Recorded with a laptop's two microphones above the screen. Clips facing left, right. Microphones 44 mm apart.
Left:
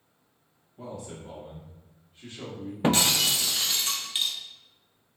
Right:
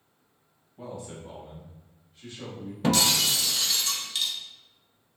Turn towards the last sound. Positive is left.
turn(degrees=30)  # may be behind; listen again after turning